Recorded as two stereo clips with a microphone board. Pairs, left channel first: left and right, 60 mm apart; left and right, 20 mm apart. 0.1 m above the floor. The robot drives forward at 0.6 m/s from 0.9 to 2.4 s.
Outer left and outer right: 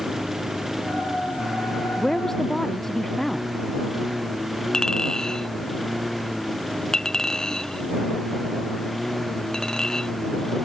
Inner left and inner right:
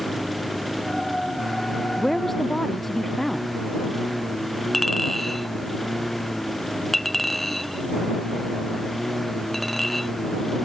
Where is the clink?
10° left (ahead or behind).